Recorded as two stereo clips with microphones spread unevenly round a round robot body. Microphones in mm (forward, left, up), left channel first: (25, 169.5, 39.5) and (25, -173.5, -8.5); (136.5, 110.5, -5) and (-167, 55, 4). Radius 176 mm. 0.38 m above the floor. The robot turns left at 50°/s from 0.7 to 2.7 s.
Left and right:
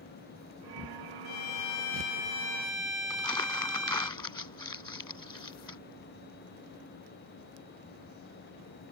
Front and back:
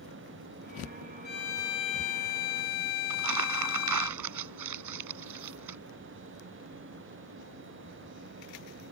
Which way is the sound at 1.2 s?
70° left.